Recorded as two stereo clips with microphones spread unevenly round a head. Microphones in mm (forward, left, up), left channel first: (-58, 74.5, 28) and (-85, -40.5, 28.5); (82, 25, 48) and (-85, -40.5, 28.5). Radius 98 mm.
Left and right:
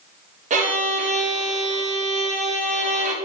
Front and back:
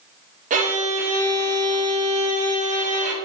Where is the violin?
115° right, 0.7 m.